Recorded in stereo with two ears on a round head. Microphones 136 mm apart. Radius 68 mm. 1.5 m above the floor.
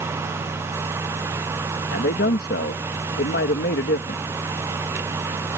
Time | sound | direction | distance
1.9 | a man speaking | 75° left (ahead or behind) | ?